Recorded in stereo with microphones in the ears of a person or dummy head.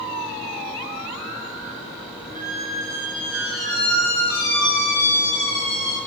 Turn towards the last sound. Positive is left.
turn(degrees=20)  # may be behind; listen again after turning